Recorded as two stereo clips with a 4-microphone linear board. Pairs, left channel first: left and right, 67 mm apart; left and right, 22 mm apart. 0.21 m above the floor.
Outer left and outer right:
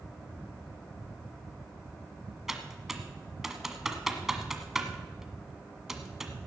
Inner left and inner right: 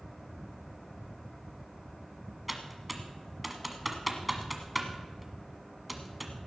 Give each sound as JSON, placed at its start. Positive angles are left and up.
{"t": 2.5, "sound": "typing on a keyboard", "side_deg": -5, "distance_m": 1.4}